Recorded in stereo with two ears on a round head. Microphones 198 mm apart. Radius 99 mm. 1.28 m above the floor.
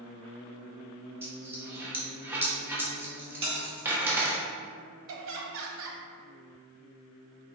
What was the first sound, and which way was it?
A dropped coin, 10° right (ahead or behind).